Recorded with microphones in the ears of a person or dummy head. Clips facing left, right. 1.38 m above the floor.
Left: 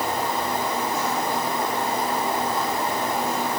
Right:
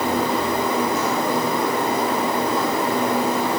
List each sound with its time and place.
Only background noise.